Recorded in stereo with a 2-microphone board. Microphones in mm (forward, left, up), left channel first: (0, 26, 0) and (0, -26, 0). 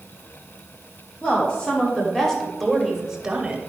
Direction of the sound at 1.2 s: 25° left (ahead or behind).